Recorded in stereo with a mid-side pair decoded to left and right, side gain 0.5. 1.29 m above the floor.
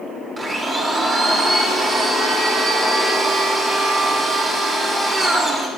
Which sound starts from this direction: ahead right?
A blender, at 0.4 s.